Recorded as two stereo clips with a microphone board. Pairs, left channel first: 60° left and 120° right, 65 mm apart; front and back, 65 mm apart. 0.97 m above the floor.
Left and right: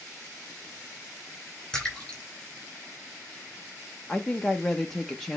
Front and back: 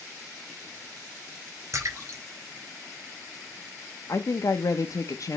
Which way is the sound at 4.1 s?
25° right.